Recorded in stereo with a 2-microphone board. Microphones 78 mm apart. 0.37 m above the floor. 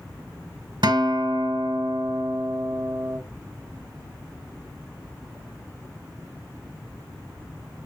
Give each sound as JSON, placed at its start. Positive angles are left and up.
{"t": 0.8, "sound": "a guitar", "side_deg": -75, "distance_m": 1.4}